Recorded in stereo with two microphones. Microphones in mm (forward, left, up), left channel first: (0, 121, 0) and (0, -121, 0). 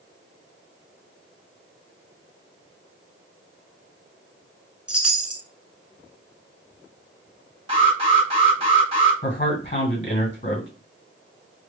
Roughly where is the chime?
Centre.